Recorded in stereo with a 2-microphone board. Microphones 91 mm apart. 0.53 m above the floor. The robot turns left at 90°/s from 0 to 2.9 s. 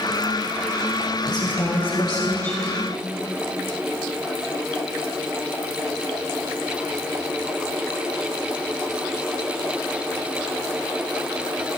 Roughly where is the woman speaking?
Behind left.